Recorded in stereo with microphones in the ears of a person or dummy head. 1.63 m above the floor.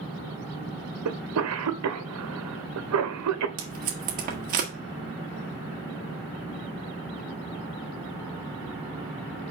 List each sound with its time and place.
1.1 s a cough: 85° right, 1.3 m
3.6 s tape being pulled: 45° right (ahead or behind), 1.7 m